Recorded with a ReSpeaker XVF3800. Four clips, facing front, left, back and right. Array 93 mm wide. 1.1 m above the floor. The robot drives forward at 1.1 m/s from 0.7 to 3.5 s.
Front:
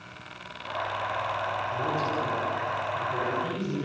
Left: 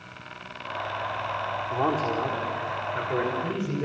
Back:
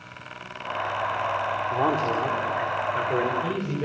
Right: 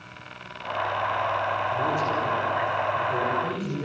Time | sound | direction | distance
1.7 | a man speaking | 145° left | 3 m